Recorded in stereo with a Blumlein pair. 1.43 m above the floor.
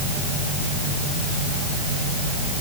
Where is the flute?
I don't hear a flute.